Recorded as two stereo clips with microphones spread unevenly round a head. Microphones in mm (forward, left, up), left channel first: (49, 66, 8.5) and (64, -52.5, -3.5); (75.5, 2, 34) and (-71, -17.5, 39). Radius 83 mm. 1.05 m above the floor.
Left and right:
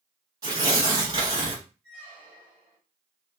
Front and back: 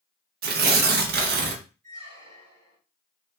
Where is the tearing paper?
150° right, 0.6 m.